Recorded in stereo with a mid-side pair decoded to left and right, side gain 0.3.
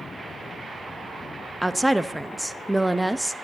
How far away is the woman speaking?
About 0.9 m.